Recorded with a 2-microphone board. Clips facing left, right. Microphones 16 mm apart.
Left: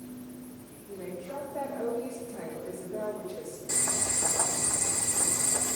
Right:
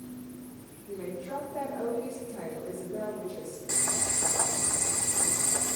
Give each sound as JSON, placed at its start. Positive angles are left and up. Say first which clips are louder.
{"t": 0.9, "sound": "a woman speaking", "louder": "right 3 dB", "side_deg": -40, "distance_m": 2.5}
{"t": 3.7, "sound": "boiling", "louder": "even", "side_deg": -60, "distance_m": 1.1}